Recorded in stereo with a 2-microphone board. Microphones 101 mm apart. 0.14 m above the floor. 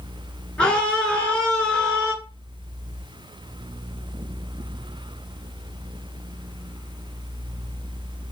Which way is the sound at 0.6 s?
10° left (ahead or behind).